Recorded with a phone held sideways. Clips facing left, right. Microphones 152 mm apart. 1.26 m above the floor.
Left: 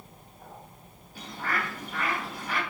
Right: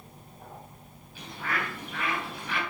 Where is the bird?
45° left (ahead or behind), 3 m.